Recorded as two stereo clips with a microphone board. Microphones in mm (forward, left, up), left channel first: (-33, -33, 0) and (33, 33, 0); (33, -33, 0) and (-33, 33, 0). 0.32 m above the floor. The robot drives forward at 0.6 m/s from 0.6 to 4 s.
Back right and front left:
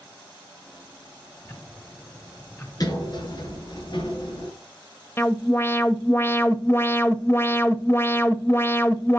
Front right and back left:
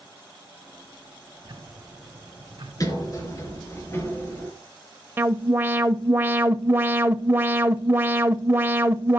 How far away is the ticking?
About 2.5 m.